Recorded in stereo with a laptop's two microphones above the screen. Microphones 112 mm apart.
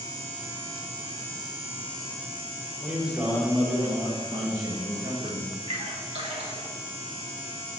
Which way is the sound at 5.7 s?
65° right (ahead or behind).